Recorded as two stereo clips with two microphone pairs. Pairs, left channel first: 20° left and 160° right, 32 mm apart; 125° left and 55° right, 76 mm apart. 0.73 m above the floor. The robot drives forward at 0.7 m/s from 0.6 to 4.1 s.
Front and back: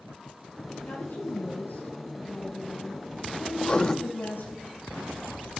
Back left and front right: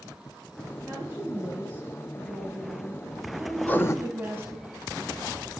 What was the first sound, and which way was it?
A woman speaking, 5° left.